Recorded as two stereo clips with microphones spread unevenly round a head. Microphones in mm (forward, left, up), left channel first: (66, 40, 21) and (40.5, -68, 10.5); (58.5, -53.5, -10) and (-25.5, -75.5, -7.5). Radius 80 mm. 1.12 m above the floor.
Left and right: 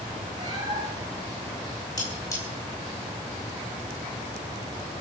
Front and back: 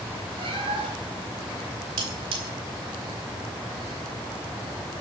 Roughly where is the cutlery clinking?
Behind left.